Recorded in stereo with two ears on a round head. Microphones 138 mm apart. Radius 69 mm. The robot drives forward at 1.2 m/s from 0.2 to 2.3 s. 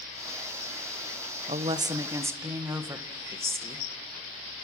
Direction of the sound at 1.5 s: 35° right (ahead or behind).